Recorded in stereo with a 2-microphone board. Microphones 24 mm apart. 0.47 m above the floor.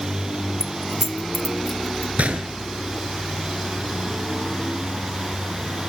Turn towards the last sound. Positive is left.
turn(degrees=-85)